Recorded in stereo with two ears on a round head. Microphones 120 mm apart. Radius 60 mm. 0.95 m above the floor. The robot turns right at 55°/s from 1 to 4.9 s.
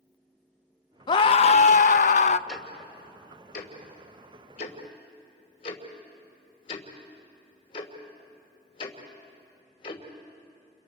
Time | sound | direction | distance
1.1 | a scream | 35° left | 0.6 m
2.5 | ticking | centre (ahead or behind) | 2.5 m